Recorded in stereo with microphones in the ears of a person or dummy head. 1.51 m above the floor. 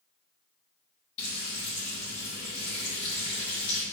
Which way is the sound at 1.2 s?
35° left (ahead or behind).